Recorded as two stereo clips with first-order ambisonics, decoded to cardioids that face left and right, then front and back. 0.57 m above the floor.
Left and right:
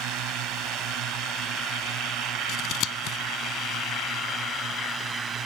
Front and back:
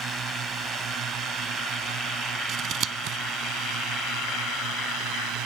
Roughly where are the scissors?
Behind left.